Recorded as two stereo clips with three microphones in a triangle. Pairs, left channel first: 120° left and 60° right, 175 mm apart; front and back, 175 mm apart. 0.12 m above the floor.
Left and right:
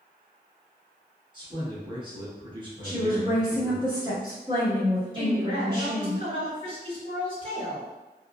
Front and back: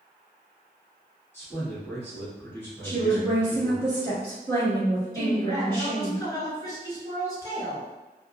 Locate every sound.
1.3 s a man speaking: 60° right, 1.2 m
2.8 s a woman speaking: 50° right, 1.3 m
5.1 s a woman speaking: 45° right, 1.9 m